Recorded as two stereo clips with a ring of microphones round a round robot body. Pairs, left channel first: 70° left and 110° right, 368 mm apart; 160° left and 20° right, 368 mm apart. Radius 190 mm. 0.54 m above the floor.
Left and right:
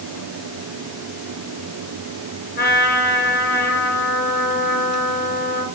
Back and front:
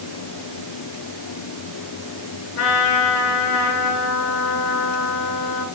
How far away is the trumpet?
About 8 m.